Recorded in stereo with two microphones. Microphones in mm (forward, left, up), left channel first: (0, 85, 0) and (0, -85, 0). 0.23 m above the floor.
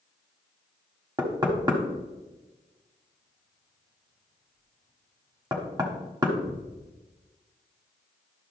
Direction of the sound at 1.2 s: 25° right (ahead or behind).